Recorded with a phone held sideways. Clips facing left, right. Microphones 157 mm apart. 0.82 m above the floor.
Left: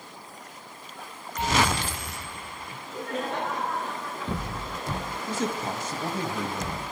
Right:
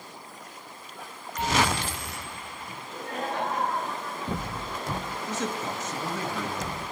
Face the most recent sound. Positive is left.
turn(degrees=10)  # may be behind; listen again after turning